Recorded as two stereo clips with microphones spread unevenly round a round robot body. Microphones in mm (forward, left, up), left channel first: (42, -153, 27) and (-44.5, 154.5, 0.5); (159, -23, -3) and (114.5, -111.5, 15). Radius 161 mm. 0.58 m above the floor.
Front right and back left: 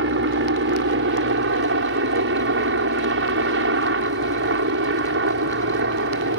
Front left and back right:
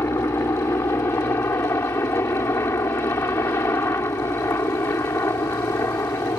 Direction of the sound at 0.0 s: 115° left.